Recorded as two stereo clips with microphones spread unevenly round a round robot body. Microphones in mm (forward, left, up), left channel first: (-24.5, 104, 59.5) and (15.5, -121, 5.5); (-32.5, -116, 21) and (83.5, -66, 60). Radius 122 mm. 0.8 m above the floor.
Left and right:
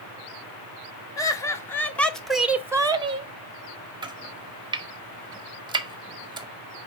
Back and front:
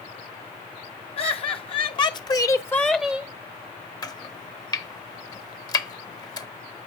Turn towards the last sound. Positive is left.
turn(degrees=-130)